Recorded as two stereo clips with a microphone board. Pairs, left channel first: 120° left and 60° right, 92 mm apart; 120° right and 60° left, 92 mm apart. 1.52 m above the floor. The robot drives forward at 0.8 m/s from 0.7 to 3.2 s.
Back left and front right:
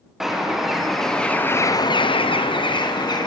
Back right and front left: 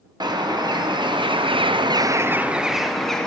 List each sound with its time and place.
0.2 s a bird: 25° left, 1.1 m; by 3.3 s 155° left, 1.1 m